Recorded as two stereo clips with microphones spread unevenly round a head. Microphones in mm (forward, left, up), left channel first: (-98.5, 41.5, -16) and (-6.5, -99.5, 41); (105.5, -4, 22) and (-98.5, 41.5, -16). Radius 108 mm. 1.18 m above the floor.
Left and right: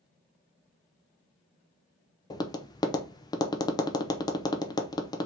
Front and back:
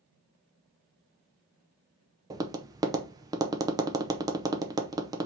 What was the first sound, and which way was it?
Tapping, 120° left.